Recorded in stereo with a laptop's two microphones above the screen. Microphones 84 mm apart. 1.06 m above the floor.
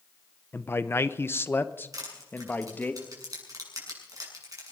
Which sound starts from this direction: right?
Crushing, at 1.9 s.